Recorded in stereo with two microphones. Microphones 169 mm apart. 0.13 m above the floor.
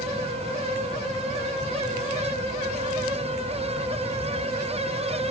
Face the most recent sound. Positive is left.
No sound to turn to.